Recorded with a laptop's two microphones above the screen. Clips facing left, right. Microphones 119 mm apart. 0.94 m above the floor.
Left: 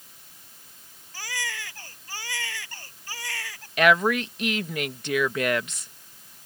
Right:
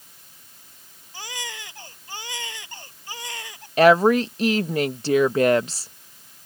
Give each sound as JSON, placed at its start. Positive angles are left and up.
{"t": 1.1, "sound": "a baby crying", "side_deg": -20}
{"t": 3.8, "sound": "a woman speaking", "side_deg": -35}